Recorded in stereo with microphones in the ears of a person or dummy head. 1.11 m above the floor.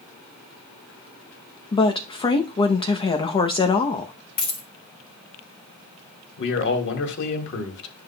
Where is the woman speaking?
25° left (ahead or behind), 0.7 m.